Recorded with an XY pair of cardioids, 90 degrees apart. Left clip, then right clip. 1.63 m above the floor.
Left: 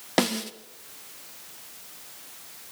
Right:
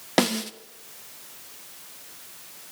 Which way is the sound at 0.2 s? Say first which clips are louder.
Right 2 dB; 10° right.